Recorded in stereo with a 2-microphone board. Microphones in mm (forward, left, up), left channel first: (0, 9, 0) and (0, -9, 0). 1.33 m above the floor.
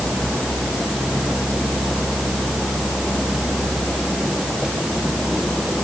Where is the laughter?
No laughter in this recording.